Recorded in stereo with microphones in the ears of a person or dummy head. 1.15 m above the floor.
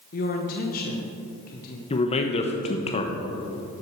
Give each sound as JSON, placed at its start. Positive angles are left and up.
{"t": 0.1, "sound": "a woman speaking", "side_deg": 45, "distance_m": 1.0}
{"t": 1.9, "sound": "a man speaking", "side_deg": 30, "distance_m": 1.0}